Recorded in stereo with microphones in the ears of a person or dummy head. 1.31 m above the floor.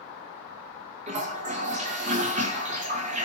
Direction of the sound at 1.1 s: 35° right (ahead or behind).